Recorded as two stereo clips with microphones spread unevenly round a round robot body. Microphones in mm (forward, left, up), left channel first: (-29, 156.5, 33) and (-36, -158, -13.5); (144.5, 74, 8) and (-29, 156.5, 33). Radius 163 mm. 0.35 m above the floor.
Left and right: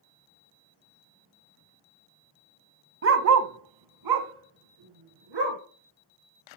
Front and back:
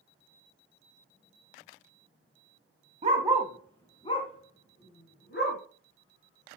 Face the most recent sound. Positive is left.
turn(degrees=-80)